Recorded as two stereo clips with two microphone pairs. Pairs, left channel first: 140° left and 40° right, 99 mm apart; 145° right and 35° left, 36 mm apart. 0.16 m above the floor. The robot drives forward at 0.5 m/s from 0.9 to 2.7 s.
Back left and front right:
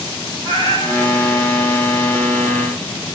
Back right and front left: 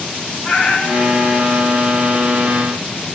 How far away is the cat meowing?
About 5.5 m.